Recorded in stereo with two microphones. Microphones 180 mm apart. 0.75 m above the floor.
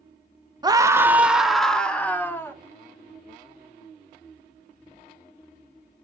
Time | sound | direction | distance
0.6 | a scream | 25° right (ahead or behind) | 0.8 m